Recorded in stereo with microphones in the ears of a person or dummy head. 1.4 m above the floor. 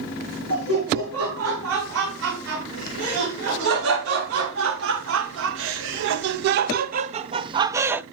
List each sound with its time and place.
0.5 s laughter: 75° right (ahead or behind), 4 m; by 8.0 s 10° right (ahead or behind), 0.9 m